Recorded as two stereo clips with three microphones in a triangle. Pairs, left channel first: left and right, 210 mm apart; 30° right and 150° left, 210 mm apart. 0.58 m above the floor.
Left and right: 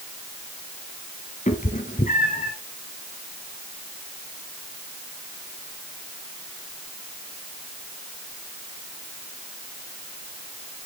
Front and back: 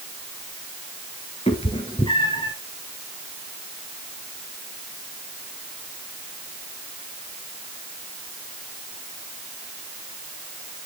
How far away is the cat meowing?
About 1.8 m.